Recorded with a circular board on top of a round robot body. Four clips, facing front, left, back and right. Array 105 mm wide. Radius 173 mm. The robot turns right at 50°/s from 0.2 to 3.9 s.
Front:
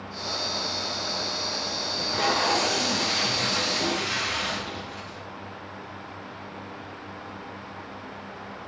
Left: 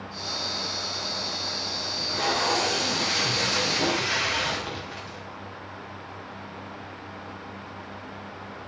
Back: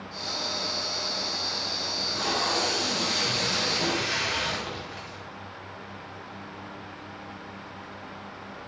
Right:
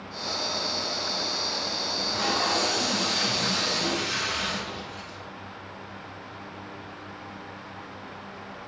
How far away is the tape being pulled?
About 3 m.